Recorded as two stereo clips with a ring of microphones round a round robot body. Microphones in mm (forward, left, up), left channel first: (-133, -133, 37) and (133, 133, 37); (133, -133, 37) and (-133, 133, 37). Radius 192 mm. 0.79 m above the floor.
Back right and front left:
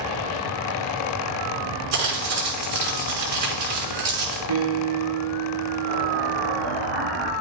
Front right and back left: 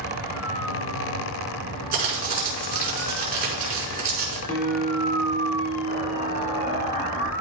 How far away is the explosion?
About 4.5 m.